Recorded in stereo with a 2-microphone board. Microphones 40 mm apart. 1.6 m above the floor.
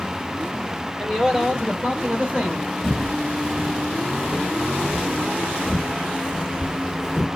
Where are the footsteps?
10° right (ahead or behind), 1.7 m; by 7.3 s 15° right (ahead or behind), 2.5 m.